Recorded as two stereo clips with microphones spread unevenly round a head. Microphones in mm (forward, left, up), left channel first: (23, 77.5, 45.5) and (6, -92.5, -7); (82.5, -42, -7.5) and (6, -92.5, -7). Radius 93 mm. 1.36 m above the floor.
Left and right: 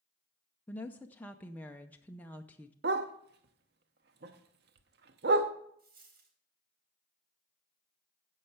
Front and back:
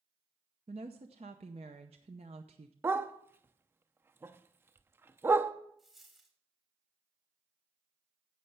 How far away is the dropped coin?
About 4 m.